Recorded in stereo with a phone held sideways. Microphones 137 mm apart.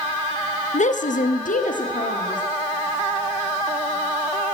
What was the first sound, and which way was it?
A woman speaking, 60° left (ahead or behind).